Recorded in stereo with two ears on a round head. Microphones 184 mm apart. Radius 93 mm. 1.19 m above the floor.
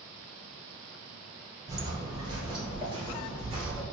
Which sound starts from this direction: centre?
Footsteps, at 1.7 s.